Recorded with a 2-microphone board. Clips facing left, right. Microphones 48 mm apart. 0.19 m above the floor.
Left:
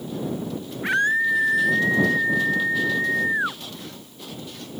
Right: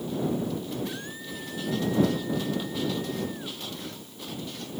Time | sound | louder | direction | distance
0.8 | a scream | left 16 dB | 70° left (ahead or behind) | ?